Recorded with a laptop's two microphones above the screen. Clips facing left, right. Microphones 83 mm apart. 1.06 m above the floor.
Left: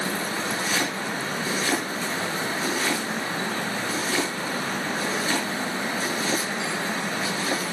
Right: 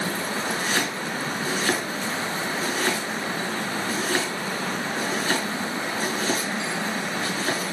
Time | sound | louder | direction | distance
0.5 | chopping | right 1 dB | 40° right (ahead or behind) | 6.5 m